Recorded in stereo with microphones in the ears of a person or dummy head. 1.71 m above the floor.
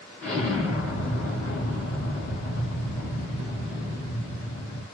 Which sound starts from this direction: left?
An explosion, at 0.2 s.